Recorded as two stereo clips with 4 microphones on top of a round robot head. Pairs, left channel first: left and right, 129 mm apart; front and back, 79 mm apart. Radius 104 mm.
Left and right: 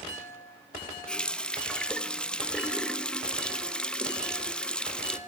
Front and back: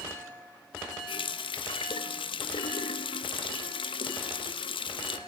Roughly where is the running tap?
Ahead.